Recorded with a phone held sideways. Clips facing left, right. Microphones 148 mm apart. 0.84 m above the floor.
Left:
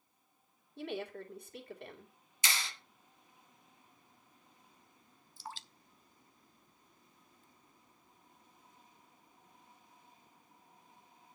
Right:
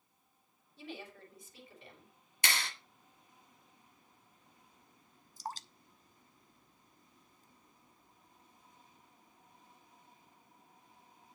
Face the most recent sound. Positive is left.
turn(degrees=-45)  # may be behind; listen again after turning